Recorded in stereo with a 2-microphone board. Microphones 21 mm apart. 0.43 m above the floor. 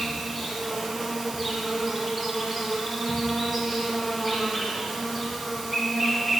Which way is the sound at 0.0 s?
5° left (ahead or behind).